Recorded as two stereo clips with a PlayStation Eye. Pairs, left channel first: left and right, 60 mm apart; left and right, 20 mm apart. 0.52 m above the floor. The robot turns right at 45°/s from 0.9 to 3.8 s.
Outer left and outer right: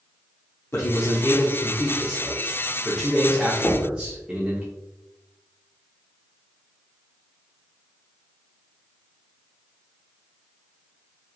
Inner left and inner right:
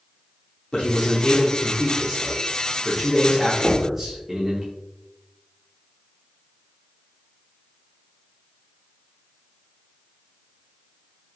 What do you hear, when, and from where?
0.7 s a man speaking: 75° left, 0.8 m; by 4.6 s 155° right, 0.8 m
3.6 s knocking: 35° left (ahead or behind), 1.0 m; by 4.0 s 30° left (ahead or behind), 1.0 m